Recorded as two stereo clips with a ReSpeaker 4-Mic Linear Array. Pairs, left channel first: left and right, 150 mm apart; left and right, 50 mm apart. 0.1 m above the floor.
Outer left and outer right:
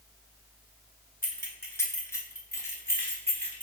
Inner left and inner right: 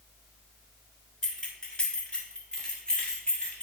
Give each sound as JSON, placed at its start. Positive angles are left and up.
{"t": 1.2, "sound": "keys jangling", "side_deg": 15, "distance_m": 1.1}